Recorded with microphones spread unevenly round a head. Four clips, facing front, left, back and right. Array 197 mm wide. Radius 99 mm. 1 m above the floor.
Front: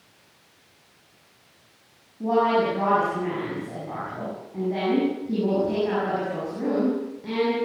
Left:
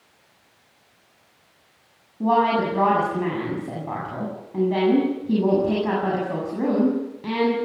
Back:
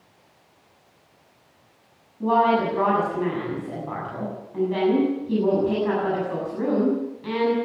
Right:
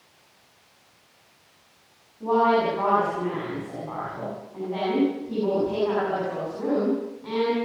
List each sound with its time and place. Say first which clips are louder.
2.2 s a woman speaking: left 1 dB, back 2 dB; 95° left, 7 m